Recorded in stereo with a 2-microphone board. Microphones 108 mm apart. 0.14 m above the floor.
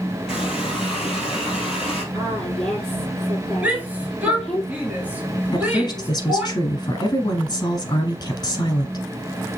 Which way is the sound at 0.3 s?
5° right (ahead or behind).